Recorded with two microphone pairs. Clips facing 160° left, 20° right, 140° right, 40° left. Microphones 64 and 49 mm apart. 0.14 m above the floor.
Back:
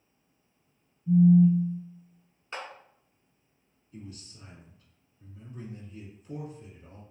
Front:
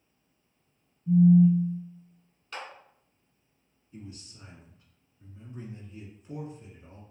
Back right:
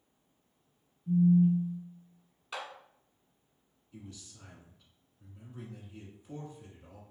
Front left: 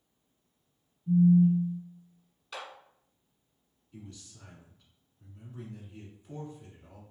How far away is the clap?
About 0.9 m.